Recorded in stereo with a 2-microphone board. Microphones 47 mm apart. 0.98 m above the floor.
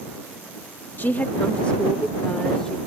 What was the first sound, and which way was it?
A woman speaking, 50° left (ahead or behind).